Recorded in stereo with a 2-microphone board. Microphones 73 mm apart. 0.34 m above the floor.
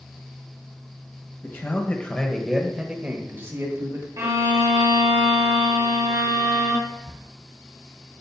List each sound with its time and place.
1.4 s a man speaking: 35° left (ahead or behind), 1.4 m; by 4.1 s 55° right (ahead or behind), 1.3 m
4.2 s a violin: 50° right (ahead or behind), 2.5 m
6.9 s whispering: 60° right (ahead or behind), 2.5 m